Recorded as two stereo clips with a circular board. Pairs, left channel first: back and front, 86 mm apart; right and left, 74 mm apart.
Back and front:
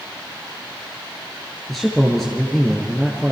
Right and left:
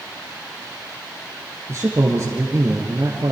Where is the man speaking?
95° left, 1.9 m.